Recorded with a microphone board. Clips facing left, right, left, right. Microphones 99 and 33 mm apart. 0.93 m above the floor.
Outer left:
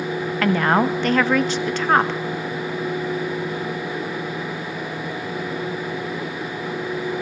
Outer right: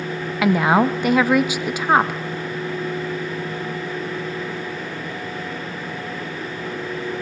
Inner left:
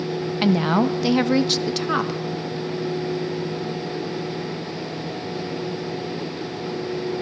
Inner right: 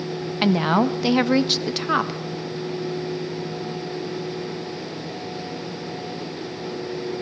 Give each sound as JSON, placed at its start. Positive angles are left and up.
{"t": 0.4, "sound": "a woman speaking", "side_deg": -10, "distance_m": 0.6}